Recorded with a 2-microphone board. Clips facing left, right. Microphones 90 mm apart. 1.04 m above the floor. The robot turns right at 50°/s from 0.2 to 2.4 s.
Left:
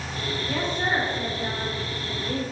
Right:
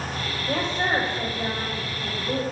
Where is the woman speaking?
135° right, 3.5 m; by 2.4 s 35° right, 3.5 m.